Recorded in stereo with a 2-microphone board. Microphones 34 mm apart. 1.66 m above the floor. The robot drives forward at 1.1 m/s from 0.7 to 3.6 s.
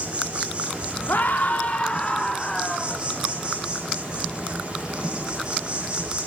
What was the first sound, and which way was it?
An insect, 40° right (ahead or behind).